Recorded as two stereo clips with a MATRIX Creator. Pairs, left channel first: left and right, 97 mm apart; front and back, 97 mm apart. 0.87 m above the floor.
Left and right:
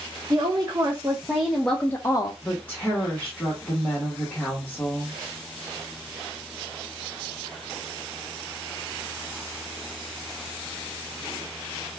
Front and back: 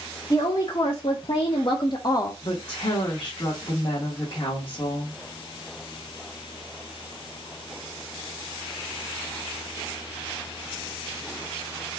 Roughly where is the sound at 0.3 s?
Ahead right.